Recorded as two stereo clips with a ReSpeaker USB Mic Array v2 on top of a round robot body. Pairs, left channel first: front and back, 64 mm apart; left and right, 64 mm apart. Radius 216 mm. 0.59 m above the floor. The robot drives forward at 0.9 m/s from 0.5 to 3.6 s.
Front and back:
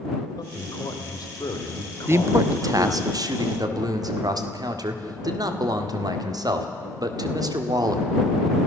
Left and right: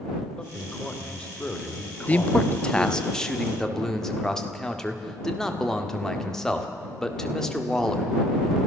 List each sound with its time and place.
0.4 s a man speaking: 10° left, 3 m; by 3.1 s 50° left, 1.0 m
2.1 s a man speaking: 145° left, 0.8 m; by 8.1 s 170° left, 1.9 m